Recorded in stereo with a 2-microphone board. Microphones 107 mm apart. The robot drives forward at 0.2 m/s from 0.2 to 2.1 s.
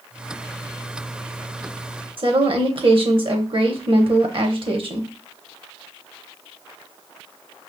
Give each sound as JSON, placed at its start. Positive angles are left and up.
{"t": 2.2, "sound": "a woman speaking", "side_deg": -55, "distance_m": 0.9}